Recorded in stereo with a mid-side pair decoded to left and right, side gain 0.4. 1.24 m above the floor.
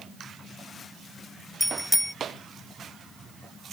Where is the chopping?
I don't hear chopping.